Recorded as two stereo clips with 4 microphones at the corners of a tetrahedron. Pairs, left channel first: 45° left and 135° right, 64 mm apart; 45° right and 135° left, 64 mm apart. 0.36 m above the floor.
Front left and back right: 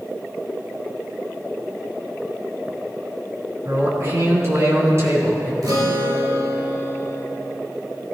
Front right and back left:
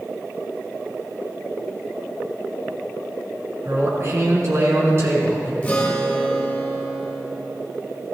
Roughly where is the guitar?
Behind right.